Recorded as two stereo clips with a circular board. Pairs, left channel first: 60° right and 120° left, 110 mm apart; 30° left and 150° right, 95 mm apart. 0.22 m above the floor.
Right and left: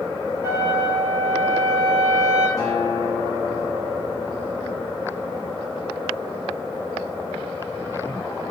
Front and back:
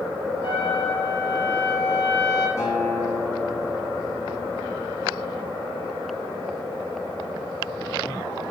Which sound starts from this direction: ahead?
A guitar, at 2.6 s.